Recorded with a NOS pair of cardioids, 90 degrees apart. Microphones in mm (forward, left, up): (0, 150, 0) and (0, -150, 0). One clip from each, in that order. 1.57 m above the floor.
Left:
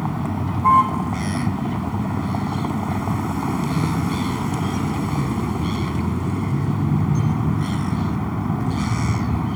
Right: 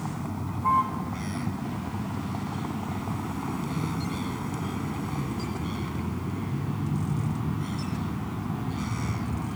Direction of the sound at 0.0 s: 60° left.